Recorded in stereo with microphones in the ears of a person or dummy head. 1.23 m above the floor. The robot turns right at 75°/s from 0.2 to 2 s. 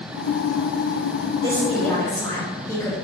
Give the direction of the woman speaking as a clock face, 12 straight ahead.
1 o'clock.